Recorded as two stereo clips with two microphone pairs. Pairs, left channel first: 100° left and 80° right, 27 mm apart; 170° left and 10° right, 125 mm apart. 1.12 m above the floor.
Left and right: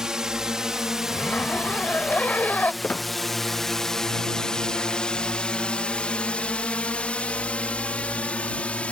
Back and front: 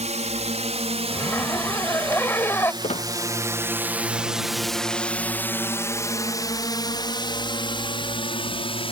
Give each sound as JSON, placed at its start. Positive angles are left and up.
{"t": 0.0, "sound": "a drone", "azimuth_deg": -15}
{"t": 1.1, "sound": "a zipper", "azimuth_deg": 95}
{"t": 2.8, "sound": "a squeak", "azimuth_deg": 135}